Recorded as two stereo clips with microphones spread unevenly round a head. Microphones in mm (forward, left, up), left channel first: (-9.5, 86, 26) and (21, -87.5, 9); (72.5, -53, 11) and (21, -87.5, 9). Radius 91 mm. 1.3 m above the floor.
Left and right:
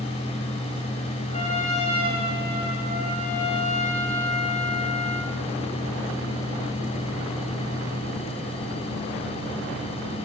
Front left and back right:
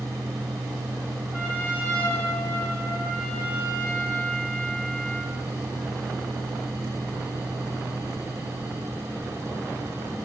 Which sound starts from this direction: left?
A trumpet, at 1.3 s.